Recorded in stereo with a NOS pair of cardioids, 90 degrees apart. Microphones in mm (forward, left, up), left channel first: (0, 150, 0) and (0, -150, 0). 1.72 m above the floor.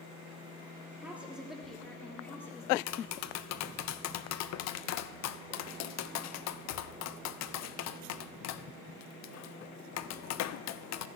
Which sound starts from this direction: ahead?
A woman speaking, at 1.0 s.